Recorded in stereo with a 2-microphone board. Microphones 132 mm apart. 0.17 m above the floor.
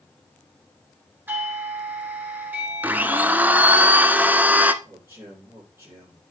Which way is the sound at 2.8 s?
15° right (ahead or behind).